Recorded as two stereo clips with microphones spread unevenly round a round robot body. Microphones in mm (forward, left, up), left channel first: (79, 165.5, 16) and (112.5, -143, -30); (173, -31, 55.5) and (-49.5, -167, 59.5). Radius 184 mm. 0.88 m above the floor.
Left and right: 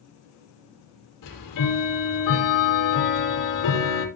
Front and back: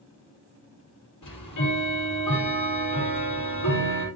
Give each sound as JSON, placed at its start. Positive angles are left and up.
{"t": 1.2, "sound": "ticking", "azimuth_deg": 75, "distance_m": 6.5}